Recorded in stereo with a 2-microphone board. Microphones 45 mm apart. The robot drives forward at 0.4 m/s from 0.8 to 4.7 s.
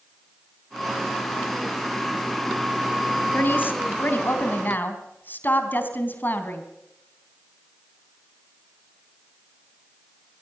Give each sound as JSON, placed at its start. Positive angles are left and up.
{"t": 3.3, "sound": "a woman speaking", "side_deg": 50, "distance_m": 3.0}